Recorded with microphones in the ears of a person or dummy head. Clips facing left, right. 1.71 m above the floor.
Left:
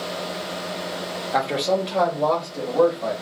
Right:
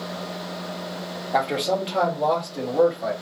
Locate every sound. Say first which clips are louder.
1.3 s a man speaking: left 1 dB; centre (ahead or behind), 0.8 m; by 3.1 s 15° right (ahead or behind), 1.6 m